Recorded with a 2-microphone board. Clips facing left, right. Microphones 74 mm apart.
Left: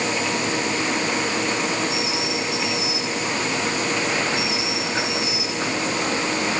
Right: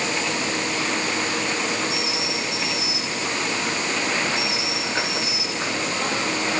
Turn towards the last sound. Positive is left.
No sound to turn to.